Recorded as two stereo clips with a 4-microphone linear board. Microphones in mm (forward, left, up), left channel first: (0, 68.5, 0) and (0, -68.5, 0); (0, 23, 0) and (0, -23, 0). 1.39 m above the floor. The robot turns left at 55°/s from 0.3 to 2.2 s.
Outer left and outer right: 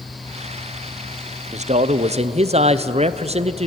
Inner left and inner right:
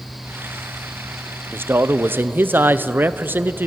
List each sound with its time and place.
1.5 s a man speaking: 75° right, 0.7 m; by 3.7 s 115° right, 0.7 m